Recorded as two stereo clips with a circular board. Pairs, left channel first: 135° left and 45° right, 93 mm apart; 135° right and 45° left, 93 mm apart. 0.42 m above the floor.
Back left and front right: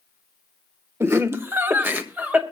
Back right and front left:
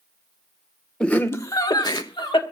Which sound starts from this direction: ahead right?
Laughter, at 1.0 s.